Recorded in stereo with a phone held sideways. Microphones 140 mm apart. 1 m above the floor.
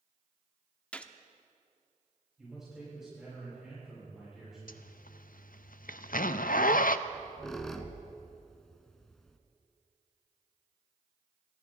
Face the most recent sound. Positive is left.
turn(degrees=5)  # may be behind; listen again after turning